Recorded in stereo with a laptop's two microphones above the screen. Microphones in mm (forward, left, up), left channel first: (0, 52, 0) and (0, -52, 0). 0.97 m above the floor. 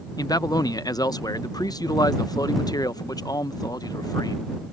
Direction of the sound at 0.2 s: 35° left (ahead or behind).